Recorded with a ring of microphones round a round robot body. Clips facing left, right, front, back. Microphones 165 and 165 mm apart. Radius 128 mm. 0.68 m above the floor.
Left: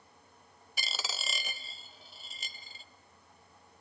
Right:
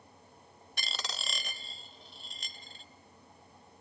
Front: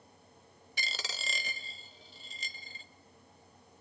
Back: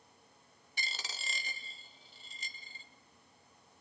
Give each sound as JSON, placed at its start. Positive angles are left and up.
{"t": 0.8, "sound": "a dropped coin", "azimuth_deg": 5, "distance_m": 0.7}